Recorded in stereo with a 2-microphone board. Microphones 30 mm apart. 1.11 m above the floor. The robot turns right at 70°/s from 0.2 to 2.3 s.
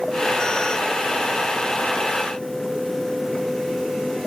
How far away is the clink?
No clink in this recording.